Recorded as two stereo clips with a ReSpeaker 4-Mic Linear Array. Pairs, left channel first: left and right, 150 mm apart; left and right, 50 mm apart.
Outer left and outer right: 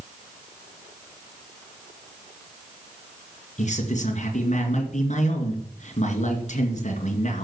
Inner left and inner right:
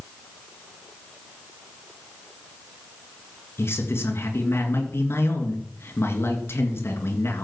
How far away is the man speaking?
About 3 m.